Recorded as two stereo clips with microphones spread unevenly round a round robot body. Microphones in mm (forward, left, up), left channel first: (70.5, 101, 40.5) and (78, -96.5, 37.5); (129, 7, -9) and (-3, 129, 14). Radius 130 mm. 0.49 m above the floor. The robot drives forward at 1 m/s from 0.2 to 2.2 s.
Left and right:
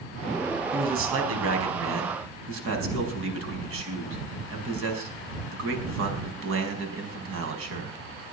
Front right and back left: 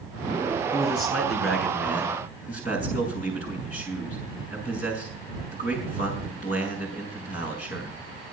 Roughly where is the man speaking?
Right.